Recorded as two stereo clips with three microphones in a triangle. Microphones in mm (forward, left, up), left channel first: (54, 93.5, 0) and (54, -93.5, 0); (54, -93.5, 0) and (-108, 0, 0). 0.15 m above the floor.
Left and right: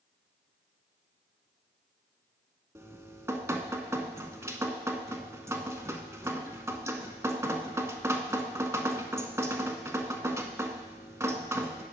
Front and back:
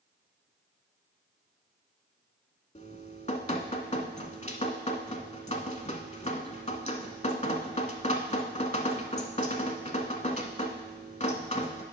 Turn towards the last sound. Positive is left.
turn(degrees=-20)